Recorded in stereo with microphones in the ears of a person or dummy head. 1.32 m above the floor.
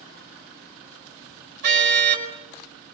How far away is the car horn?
About 5 m.